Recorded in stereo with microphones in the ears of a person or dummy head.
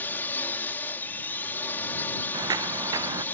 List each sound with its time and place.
0.0 s a drone: 15° left (ahead or behind)
2.3 s footsteps: 30° right (ahead or behind)